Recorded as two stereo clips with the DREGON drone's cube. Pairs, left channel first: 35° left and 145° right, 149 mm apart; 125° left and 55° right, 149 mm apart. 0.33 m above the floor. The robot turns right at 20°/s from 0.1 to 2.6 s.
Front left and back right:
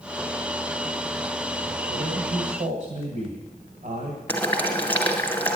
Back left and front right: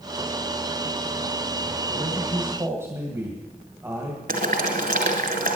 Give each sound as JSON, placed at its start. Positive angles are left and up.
{"t": 1.9, "sound": "a man speaking", "azimuth_deg": -140, "distance_m": 2.0}
{"t": 4.3, "sound": "boiling", "azimuth_deg": -45, "distance_m": 2.0}